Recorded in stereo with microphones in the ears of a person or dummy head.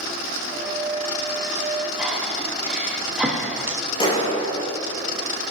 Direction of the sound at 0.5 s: 5° right (ahead or behind).